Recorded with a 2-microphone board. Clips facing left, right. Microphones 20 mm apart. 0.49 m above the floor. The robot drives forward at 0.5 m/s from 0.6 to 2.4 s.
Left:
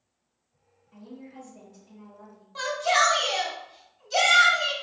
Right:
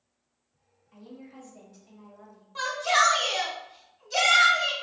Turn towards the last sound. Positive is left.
turn(degrees=15)  # may be behind; listen again after turning